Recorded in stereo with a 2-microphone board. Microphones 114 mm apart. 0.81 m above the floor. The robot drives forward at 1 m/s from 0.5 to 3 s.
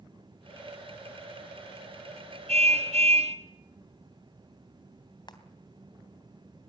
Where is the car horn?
85° right, 2.5 m; by 3.4 s 80° right, 2.5 m.